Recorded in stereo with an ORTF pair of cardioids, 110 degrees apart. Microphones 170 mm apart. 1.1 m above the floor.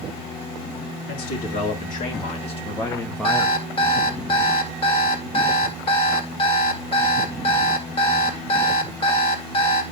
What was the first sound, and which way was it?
A man speaking, 65° left.